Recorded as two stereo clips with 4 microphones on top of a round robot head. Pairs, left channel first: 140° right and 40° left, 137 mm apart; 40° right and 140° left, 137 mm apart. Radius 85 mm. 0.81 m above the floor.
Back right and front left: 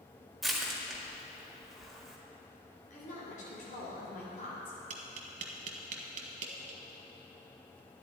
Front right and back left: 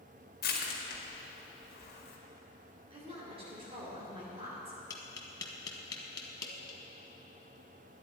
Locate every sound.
0.4 s crushing: 45° right, 1.9 m
2.9 s a woman speaking: 170° right, 3 m
4.9 s tapping: 15° left, 1.0 m